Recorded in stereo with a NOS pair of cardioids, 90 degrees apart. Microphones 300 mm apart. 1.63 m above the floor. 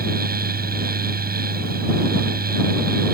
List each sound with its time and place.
0.0 s a fan: 30° right